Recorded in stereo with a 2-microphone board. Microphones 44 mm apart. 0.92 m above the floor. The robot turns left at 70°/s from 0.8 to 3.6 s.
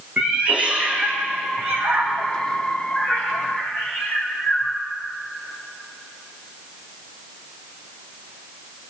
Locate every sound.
0.2 s a cat meowing: 35° right (ahead or behind), 4.5 m; by 4.8 s 50° left (ahead or behind), 4.5 m